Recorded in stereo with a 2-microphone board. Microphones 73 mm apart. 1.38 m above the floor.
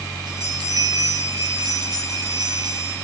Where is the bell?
70° right (ahead or behind), 8 m.